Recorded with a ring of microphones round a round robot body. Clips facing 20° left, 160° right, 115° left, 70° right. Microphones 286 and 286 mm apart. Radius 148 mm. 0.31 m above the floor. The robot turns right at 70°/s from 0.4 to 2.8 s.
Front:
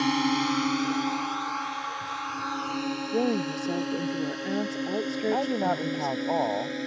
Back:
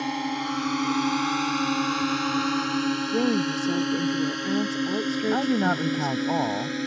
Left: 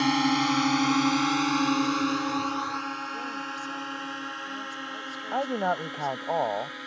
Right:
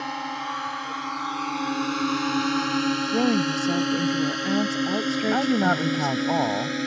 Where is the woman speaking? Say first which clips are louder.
Back 1 dB, right 17 dB; 80° right.